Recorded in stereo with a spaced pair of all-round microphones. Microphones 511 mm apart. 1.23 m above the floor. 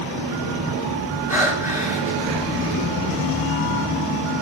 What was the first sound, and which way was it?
Breathing, 5° right (ahead or behind).